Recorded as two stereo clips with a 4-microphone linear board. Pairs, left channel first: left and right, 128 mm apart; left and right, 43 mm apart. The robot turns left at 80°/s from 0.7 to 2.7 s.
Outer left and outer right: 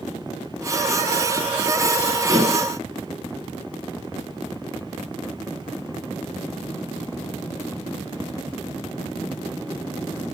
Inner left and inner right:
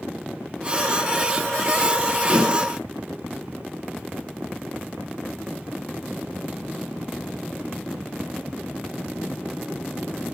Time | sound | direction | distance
2.3 | dishes clattering | 5° right (ahead or behind) | 2.5 m